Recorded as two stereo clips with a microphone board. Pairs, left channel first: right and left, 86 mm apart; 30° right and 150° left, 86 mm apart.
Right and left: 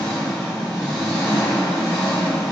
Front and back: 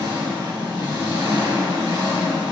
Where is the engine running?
175° left, 1.8 m.